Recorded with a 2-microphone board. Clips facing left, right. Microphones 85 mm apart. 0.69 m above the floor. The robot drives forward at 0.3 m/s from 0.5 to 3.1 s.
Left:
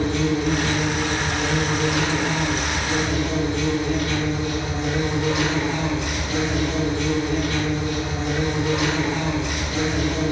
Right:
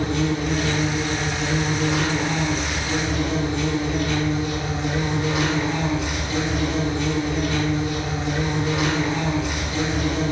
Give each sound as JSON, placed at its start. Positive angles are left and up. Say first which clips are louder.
{"t": 0.0, "sound": "an insect", "louder": "left 2 dB", "side_deg": 70, "distance_m": 1.6}